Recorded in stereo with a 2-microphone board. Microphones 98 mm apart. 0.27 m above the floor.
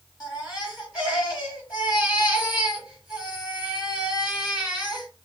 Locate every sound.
0.2 s a baby crying: 5° right (ahead or behind), 3.5 m